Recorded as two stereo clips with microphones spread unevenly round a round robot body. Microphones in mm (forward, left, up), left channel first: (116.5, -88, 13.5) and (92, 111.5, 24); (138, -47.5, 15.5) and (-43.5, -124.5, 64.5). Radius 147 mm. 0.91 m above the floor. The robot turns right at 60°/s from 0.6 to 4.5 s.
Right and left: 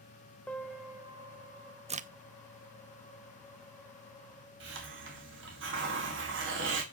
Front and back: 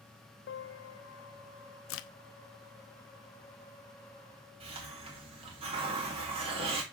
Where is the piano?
5° left, 1.1 m; by 1.9 s 80° left, 1.1 m.